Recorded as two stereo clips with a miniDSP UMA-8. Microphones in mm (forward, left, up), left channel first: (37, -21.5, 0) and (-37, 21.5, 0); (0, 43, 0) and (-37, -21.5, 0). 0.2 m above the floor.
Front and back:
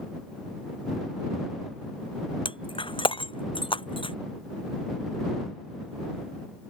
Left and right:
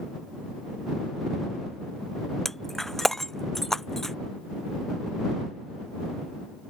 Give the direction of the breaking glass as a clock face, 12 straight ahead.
1 o'clock.